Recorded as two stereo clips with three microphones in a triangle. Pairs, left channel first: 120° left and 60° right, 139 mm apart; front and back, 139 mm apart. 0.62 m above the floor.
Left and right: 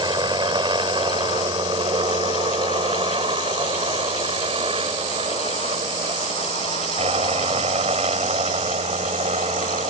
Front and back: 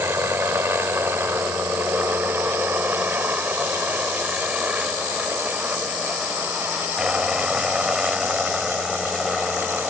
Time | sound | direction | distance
0.0 | a helicopter | 110° right | ?